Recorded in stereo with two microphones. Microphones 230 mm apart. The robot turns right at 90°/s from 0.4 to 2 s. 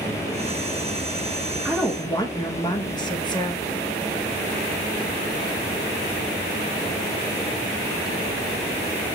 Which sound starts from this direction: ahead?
A woman speaking, at 1.6 s.